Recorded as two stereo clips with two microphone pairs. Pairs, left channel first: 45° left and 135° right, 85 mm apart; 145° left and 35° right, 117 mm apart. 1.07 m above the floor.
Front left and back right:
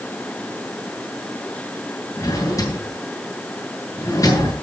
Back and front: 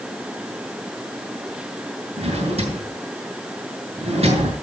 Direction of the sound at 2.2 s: 5° right.